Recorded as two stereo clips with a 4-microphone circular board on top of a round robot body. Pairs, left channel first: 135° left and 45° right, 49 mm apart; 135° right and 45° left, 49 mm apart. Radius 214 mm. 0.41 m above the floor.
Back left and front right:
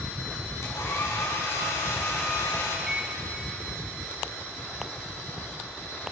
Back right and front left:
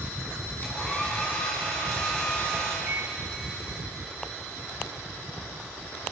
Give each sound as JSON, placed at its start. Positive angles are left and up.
{"t": 0.6, "sound": "a hair dryer", "azimuth_deg": 155, "distance_m": 6.0}
{"t": 2.9, "sound": "a microwave", "azimuth_deg": 30, "distance_m": 1.3}